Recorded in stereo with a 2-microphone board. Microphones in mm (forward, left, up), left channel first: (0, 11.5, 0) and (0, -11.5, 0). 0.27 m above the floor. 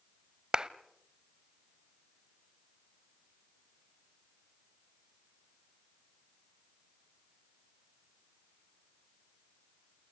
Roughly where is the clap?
Right.